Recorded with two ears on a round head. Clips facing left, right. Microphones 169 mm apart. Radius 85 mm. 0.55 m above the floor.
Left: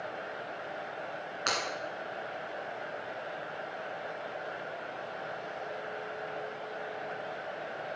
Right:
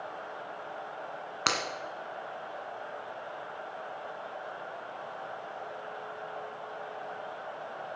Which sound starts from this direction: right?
Breaking glass, at 1.5 s.